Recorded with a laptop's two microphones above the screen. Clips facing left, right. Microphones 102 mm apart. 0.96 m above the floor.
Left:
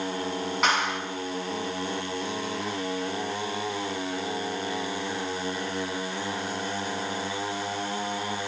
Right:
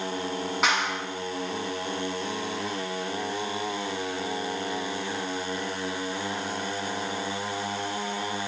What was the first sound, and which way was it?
A clap, centre (ahead or behind).